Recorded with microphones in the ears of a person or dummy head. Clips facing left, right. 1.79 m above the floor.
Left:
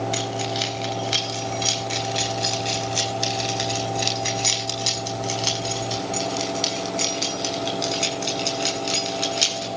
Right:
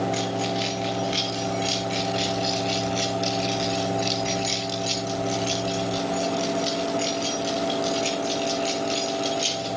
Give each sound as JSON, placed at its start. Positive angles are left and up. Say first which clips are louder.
{"t": 0.1, "sound": "keys jangling", "louder": "right 1 dB", "side_deg": 50, "distance_m": 4.0}